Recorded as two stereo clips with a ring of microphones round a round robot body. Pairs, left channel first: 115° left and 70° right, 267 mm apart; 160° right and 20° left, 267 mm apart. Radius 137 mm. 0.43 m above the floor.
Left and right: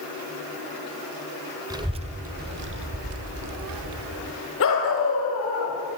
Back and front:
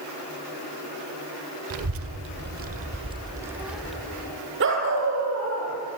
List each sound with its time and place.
1.7 s a child speaking: 5° left, 1.3 m; by 4.3 s 75° right, 1.8 m
4.6 s a dog barking: 70° left, 5 m